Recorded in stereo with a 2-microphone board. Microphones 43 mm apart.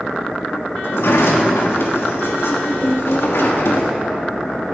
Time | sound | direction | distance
0.8 | a sliding door | 75° left (ahead or behind) | 1.3 m